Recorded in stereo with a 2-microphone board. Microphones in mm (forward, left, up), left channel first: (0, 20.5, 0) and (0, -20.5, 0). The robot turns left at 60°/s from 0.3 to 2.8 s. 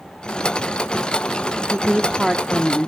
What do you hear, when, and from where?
1.7 s a woman speaking: 135° right, 1.0 m; by 2.9 s 160° left, 1.0 m